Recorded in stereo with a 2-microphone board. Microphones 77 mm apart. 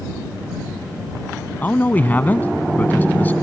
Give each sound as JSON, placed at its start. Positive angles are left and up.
{"t": 1.6, "sound": "a man speaking", "side_deg": 25}